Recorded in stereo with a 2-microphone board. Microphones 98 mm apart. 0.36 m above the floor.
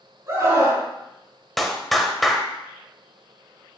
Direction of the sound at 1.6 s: Centre (ahead or behind).